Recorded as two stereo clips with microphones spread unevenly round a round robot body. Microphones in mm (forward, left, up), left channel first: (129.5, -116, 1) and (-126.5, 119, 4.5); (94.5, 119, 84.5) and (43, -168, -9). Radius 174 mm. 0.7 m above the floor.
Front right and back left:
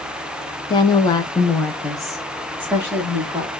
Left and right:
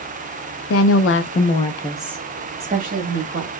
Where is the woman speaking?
30° left, 0.7 m; by 3.5 s 140° right, 1.1 m.